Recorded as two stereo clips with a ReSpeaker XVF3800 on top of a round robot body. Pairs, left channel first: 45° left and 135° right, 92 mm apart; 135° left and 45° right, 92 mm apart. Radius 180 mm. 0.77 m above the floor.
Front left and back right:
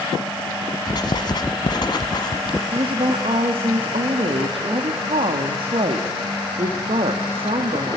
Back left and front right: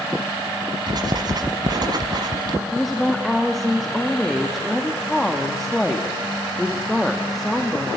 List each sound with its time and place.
0.9 s writing: straight ahead, 1.2 m
2.7 s a woman speaking: 135° right, 1.9 m